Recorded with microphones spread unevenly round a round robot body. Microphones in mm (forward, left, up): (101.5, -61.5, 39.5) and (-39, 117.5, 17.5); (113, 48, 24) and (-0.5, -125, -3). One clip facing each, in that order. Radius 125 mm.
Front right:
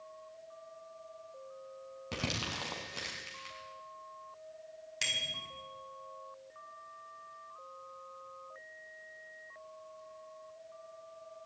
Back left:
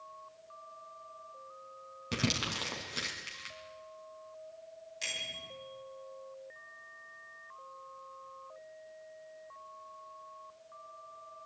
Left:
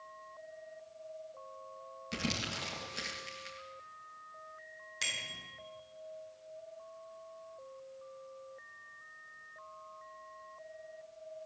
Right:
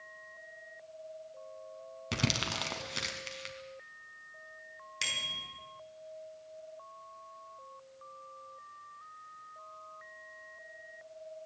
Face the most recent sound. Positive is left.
turn(degrees=-65)